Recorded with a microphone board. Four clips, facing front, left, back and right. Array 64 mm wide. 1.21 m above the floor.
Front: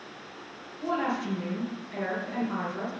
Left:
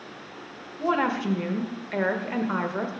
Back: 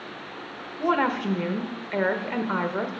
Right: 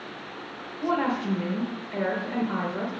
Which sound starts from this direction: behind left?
A woman speaking, at 0.8 s.